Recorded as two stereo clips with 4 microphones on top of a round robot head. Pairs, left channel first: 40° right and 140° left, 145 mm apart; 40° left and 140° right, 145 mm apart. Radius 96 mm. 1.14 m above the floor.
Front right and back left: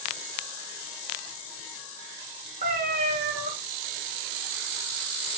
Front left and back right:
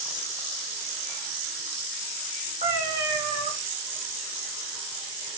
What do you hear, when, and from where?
2.6 s a cat meowing: 165° left, 1.0 m